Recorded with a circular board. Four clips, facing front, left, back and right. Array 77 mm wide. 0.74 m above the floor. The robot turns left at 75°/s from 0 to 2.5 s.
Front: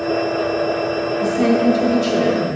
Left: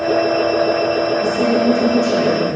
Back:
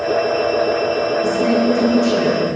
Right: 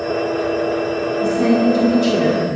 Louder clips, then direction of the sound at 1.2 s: Right 4 dB, front 2 dB; 5° left.